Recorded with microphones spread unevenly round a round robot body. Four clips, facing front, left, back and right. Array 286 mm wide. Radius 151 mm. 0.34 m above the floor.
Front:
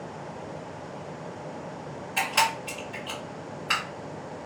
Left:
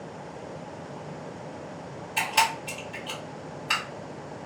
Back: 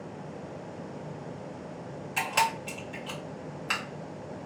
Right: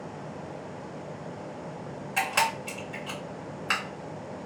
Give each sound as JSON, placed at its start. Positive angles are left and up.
{"t": 2.2, "sound": "a camera shutter", "azimuth_deg": -165, "distance_m": 1.7}